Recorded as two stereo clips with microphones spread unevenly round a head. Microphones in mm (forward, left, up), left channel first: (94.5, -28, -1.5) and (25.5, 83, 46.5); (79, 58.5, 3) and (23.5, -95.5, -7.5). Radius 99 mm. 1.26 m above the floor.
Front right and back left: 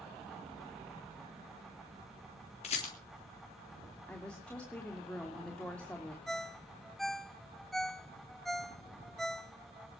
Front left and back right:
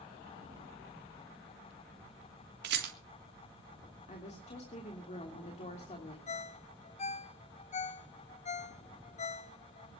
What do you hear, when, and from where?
2.6 s a rattle: 105° right, 3.5 m
4.1 s a woman speaking: 25° left, 3 m
6.3 s a ringtone: 45° left, 0.8 m